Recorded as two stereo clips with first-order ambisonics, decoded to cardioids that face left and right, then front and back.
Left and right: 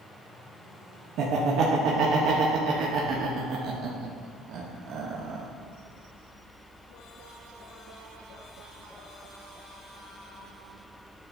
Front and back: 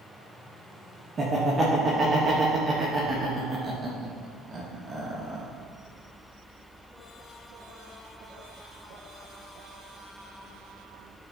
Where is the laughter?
115° right, 0.6 m.